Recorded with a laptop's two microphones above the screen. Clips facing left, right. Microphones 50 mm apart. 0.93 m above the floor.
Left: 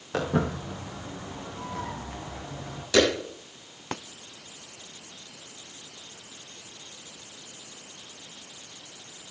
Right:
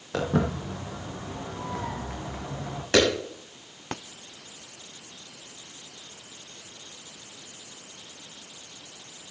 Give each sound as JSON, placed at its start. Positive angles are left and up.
{"t": 0.1, "sound": "footsteps", "side_deg": 5, "distance_m": 2.5}
{"t": 2.9, "sound": "a clap", "side_deg": -45, "distance_m": 6.0}